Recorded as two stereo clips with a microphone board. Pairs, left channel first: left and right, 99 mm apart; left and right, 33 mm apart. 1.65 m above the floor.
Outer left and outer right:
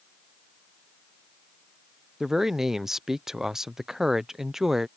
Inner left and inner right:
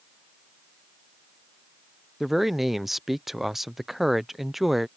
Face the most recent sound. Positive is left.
turn(degrees=-5)  # may be behind; listen again after turning